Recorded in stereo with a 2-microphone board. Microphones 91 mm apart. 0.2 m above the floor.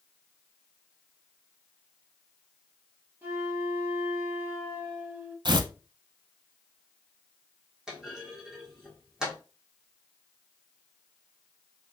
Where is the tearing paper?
55° right (ahead or behind), 0.5 m.